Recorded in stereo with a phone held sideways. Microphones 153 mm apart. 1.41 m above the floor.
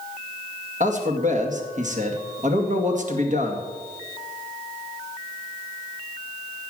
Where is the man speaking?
55° right (ahead or behind), 2 m.